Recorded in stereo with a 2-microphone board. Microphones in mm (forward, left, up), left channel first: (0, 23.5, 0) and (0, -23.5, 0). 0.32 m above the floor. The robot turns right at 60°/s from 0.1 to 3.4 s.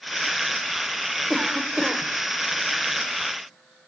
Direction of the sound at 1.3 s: 5° right (ahead or behind).